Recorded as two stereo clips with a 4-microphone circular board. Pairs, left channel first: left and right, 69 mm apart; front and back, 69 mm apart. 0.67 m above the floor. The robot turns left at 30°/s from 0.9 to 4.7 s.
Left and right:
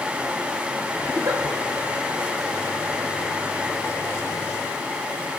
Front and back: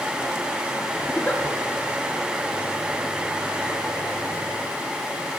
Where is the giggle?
65° right, 0.8 m; by 1.4 s 75° right, 0.8 m.